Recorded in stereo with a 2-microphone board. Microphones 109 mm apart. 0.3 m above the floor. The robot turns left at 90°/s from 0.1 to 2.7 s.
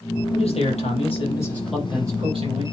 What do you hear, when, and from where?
0.3 s a man speaking: 125° left, 9 m; by 2.6 s 80° right, 9 m